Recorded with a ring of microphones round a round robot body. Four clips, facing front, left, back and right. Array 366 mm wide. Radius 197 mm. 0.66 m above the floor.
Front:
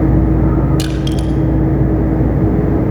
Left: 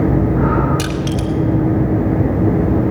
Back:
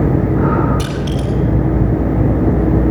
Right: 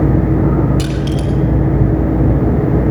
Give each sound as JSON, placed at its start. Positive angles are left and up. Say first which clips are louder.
{"t": 0.8, "sound": "crushing", "louder": "right 1 dB, front 2 dB", "azimuth_deg": 20, "distance_m": 2.5}